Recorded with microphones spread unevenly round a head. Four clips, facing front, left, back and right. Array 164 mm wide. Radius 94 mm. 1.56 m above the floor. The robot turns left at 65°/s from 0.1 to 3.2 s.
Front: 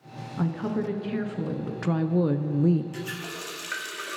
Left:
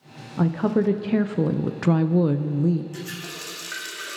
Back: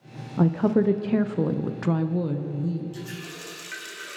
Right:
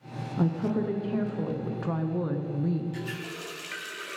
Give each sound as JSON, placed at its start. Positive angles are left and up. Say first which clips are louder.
{"t": 0.4, "sound": "a woman speaking", "louder": "left 6 dB, back 7 dB", "azimuth_deg": 180, "distance_m": 0.6}
{"t": 2.9, "sound": "a running tap", "louder": "even, front 2 dB", "azimuth_deg": 30, "distance_m": 2.0}